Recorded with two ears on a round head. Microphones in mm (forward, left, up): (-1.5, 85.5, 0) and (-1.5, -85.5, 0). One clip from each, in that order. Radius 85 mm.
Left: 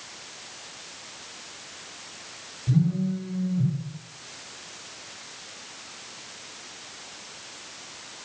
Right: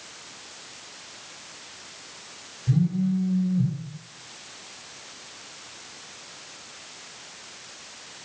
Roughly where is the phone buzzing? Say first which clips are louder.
Right 1 dB; left.